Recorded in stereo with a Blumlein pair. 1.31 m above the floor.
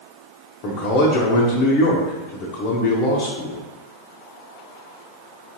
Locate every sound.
0.6 s a man speaking: 40° left, 0.6 m